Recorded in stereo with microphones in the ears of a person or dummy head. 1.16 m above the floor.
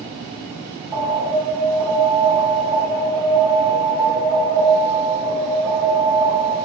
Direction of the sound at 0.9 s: 30° right (ahead or behind).